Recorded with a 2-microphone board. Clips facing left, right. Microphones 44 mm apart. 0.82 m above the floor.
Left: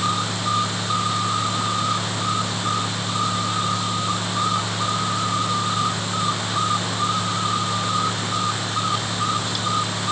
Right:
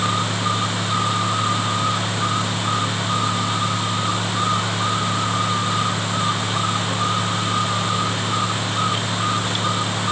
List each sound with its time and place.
Only background noise.